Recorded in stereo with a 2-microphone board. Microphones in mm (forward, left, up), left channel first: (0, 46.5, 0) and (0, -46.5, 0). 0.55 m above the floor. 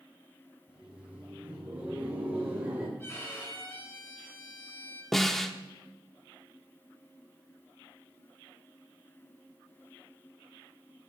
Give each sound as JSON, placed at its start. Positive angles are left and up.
{"t": 0.7, "sound": "laughter", "side_deg": -10, "distance_m": 3.5}
{"t": 3.0, "sound": "a violin", "side_deg": 25, "distance_m": 4.0}
{"t": 5.1, "sound": "a snare drum", "side_deg": 5, "distance_m": 0.8}